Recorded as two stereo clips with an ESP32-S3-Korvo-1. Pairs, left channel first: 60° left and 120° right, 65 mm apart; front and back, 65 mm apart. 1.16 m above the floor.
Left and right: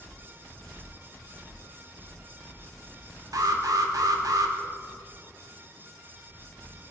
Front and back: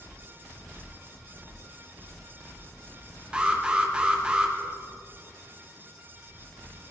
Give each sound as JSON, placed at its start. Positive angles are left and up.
{"t": 3.3, "sound": "an alarm", "azimuth_deg": -105, "distance_m": 1.5}